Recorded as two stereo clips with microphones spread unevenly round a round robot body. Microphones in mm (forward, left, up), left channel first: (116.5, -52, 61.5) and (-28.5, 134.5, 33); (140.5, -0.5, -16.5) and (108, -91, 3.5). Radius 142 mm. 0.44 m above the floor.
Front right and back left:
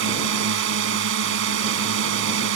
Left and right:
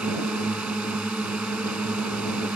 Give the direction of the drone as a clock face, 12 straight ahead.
7 o'clock.